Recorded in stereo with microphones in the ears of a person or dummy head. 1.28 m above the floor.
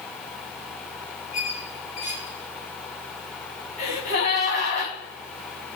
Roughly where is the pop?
No pop in this recording.